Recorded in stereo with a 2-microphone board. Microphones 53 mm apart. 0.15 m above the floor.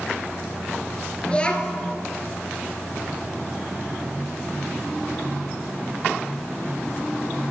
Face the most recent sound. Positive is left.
turn(degrees=20)  # may be behind; listen again after turning